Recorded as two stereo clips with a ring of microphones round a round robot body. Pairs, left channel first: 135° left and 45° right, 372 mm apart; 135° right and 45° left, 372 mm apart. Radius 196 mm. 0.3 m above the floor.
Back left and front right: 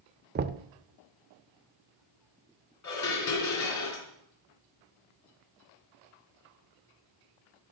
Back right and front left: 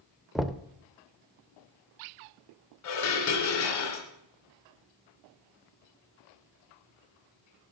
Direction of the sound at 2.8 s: Straight behind.